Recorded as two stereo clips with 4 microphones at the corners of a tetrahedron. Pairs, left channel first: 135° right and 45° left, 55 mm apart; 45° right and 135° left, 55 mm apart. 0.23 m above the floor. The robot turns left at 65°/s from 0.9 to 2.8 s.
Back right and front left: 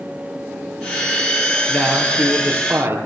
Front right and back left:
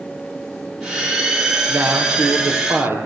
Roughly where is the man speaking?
Behind.